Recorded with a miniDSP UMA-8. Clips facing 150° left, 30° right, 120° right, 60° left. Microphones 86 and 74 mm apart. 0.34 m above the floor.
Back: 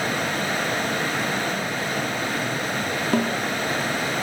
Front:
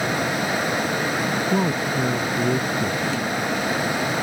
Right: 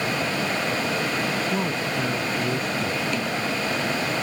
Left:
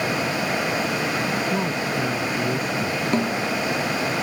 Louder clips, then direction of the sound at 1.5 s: Front 5 dB, left 1 dB; 30° right.